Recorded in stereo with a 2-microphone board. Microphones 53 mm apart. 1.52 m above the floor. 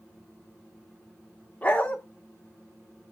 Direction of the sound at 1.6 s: 25° left (ahead or behind).